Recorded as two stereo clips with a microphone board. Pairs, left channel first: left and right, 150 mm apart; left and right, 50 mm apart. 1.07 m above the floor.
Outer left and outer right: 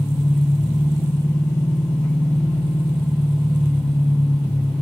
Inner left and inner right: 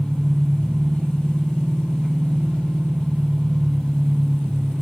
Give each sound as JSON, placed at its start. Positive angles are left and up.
{"t": 0.0, "sound": "an engine running", "side_deg": 20, "distance_m": 1.5}